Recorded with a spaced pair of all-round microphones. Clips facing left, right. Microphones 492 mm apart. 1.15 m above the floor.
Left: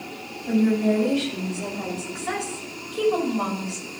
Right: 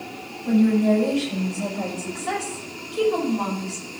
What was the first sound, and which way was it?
A woman speaking, 65° right (ahead or behind).